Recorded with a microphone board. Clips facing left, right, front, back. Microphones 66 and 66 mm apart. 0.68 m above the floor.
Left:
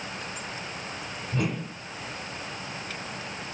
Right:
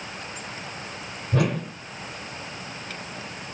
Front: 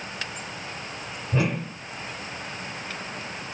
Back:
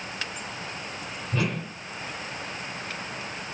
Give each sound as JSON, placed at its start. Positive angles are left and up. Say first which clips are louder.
{"t": 1.3, "sound": "a whoosh", "louder": "right 6 dB, front 3 dB", "azimuth_deg": -70, "distance_m": 0.9}